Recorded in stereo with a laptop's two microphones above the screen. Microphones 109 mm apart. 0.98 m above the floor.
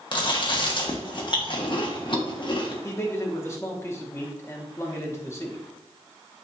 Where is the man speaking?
25° left (ahead or behind), 1.1 m.